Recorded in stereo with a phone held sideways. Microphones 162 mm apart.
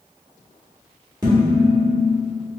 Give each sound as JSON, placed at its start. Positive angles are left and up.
{"t": 1.2, "sound": "dishes clattering", "side_deg": -25, "distance_m": 1.5}